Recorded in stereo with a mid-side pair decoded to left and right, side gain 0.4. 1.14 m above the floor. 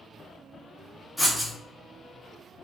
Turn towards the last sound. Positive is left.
turn(degrees=5)